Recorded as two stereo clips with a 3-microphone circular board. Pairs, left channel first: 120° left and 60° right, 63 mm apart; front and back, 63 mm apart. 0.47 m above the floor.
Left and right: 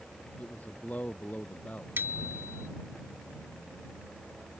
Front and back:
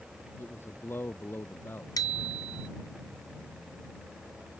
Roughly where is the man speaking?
Ahead left.